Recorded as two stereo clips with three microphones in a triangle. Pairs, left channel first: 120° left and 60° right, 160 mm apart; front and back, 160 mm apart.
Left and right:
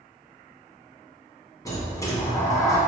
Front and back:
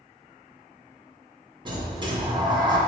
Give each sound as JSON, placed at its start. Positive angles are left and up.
{"t": 1.6, "sound": "a sliding door", "azimuth_deg": 165, "distance_m": 1.5}